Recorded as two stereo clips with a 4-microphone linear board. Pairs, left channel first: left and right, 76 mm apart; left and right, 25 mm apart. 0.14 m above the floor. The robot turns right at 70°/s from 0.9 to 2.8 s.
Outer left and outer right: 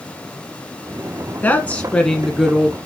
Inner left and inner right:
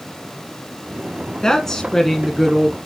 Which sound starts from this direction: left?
A woman speaking, at 1.4 s.